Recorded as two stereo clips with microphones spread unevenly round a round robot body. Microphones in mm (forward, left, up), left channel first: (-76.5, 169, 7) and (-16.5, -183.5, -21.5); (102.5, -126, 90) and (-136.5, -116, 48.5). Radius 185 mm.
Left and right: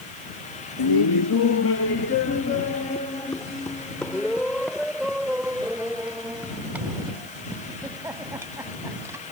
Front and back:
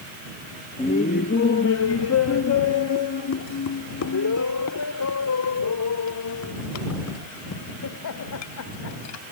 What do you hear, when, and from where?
0.8 s laughter: 70° left; by 9.3 s 5° left